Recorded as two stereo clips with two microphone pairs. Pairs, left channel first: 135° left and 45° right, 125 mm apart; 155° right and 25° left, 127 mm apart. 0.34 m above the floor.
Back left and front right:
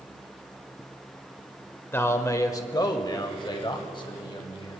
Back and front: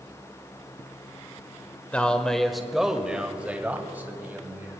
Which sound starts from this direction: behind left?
A man speaking, at 1.9 s.